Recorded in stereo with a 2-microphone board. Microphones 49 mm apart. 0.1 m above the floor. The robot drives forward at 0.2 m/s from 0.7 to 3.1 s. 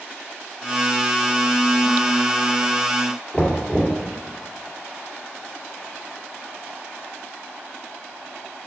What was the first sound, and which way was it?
Knocking, 20° left (ahead or behind).